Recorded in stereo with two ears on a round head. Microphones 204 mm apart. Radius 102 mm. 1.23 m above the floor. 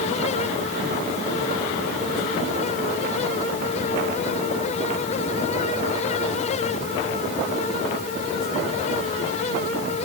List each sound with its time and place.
Only background noise.